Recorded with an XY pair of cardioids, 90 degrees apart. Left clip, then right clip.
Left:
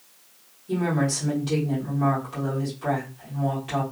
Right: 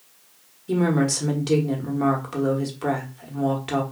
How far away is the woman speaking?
About 1.2 m.